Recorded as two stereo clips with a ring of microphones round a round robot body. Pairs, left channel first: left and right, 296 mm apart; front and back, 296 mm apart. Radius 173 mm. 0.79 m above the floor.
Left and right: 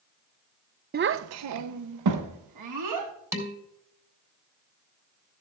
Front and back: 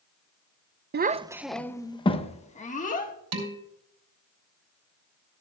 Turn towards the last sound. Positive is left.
turn(degrees=-170)